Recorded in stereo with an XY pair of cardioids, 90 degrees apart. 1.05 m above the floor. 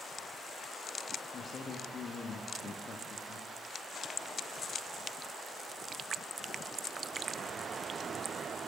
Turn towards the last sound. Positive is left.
turn(degrees=50)